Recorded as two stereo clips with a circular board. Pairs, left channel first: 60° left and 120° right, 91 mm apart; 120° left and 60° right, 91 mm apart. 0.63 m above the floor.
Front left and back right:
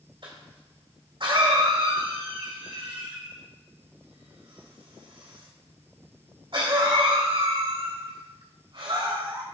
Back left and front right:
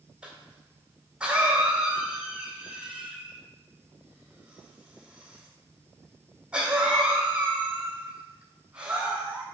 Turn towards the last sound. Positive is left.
turn(degrees=-140)